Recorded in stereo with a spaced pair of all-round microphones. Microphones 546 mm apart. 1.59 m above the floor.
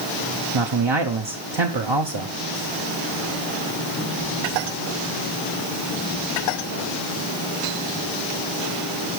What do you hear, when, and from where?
0.5 s a man speaking: 50° right (ahead or behind), 0.9 m